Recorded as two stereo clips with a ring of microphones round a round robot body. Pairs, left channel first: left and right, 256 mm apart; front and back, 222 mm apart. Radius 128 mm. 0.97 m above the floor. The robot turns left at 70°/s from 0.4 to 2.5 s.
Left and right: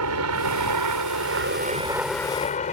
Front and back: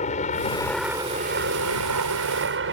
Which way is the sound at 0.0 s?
65° right.